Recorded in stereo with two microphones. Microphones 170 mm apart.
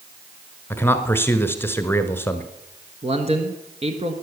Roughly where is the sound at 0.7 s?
Centre.